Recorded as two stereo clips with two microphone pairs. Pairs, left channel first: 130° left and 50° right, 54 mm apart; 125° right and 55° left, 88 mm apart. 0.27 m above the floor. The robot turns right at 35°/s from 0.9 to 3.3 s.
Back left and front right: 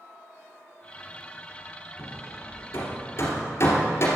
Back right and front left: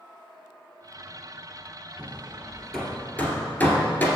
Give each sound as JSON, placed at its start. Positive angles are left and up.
{"t": 2.0, "sound": "hammering", "azimuth_deg": 120, "distance_m": 2.5}